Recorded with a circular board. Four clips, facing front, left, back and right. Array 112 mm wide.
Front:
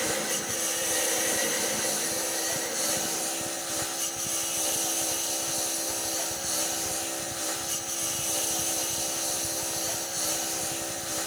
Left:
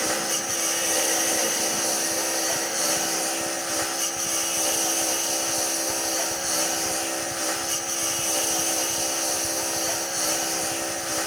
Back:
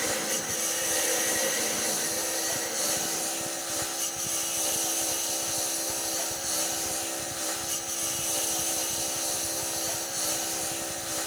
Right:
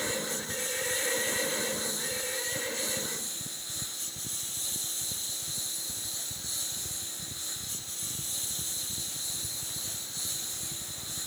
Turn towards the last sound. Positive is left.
turn(degrees=90)